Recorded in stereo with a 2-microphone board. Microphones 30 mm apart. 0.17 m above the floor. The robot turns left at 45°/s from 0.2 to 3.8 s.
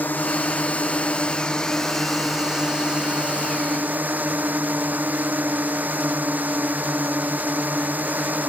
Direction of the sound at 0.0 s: 85° left.